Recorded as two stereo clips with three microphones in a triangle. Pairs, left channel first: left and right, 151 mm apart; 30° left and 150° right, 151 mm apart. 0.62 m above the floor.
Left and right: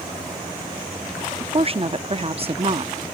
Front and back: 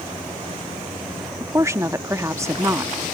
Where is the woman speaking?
90° right.